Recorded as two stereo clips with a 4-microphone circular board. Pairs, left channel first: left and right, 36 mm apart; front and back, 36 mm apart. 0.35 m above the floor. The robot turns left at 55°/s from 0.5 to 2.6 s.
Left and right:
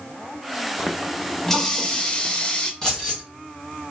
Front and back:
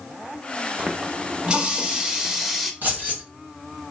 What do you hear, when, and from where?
0.8 s a running tap: 170° right, 0.6 m; by 2.7 s 90° left, 0.6 m
2.8 s keys jangling: 160° left, 2 m